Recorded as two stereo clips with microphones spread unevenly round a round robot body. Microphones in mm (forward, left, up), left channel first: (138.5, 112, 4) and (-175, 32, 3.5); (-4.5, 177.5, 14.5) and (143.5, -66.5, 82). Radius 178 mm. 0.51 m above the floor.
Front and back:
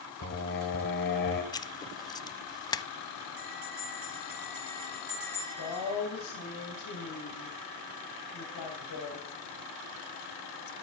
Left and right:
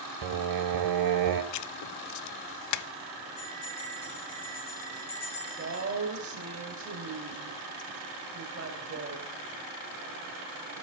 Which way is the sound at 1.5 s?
90° left.